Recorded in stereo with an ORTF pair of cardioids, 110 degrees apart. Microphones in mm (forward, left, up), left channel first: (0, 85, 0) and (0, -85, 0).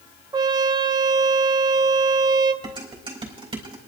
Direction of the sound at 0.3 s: 25° right.